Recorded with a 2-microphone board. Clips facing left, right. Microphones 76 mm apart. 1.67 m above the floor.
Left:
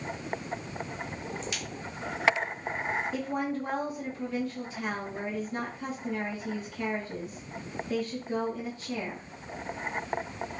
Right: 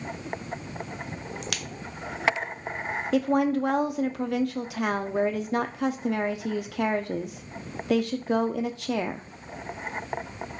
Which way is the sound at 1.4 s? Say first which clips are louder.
Right 1 dB; 70° right (ahead or behind).